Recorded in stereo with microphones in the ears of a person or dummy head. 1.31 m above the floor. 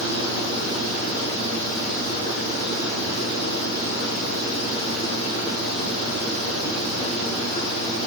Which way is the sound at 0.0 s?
75° left (ahead or behind).